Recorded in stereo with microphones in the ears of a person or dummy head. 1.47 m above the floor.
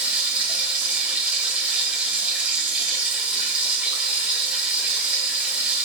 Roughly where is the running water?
Centre.